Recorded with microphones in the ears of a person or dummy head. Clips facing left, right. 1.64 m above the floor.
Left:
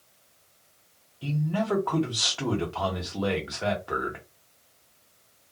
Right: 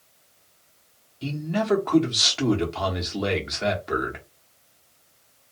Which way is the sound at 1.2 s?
25° right (ahead or behind).